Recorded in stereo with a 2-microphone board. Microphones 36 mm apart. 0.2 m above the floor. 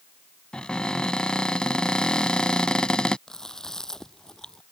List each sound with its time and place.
0.5 s a cupboard door: 25° left (ahead or behind)
3.3 s chewing: 15° left (ahead or behind)